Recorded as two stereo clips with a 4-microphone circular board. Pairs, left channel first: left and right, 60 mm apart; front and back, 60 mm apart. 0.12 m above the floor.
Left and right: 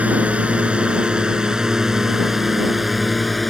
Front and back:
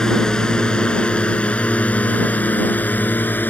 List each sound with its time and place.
0.0 s a drone: 65° right; by 3.5 s straight ahead